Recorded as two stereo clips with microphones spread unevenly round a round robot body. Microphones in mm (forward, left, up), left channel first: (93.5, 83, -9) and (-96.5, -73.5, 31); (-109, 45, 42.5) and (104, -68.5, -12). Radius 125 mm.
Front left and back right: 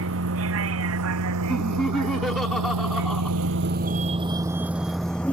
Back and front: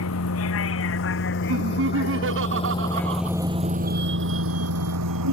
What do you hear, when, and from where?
0.0 s a vehicle: 175° right; by 5.3 s 45° right
1.5 s laughter: 45° right